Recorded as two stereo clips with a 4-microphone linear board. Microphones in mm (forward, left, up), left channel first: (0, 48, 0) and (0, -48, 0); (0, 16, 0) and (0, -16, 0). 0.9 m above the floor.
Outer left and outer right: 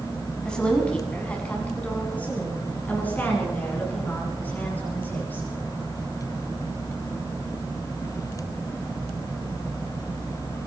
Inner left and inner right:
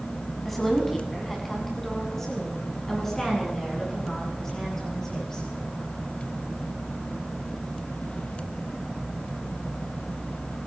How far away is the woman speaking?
About 6.5 m.